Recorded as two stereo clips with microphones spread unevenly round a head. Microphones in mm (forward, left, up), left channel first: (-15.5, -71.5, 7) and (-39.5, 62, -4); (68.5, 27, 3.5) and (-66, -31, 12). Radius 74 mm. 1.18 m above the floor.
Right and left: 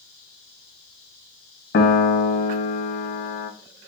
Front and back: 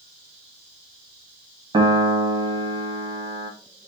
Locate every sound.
1.7 s a piano: 95° right, 0.6 m